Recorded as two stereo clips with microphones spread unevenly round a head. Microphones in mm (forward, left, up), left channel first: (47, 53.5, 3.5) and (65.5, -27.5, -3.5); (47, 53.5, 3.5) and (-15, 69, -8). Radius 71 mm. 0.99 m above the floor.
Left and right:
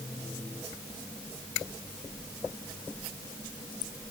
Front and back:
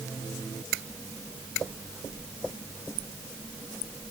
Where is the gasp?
I don't hear a gasp.